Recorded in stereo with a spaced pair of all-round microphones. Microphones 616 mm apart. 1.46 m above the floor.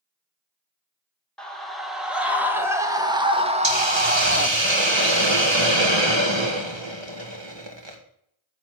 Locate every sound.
1.4 s a scream: centre (ahead or behind), 3 m; by 4.5 s 20° right (ahead or behind), 1.4 m
3.6 s a hiss: 45° right (ahead or behind), 2 m